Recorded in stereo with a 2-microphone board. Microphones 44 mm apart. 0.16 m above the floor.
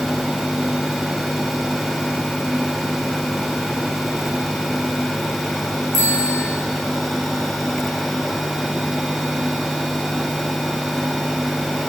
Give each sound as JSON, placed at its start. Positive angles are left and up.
{"t": 5.9, "sound": "a bicycle bell", "side_deg": 55, "distance_m": 8.0}